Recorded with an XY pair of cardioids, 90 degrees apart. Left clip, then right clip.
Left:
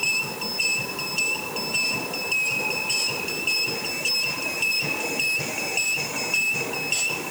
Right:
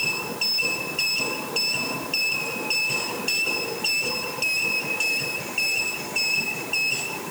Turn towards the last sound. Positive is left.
No sound to turn to.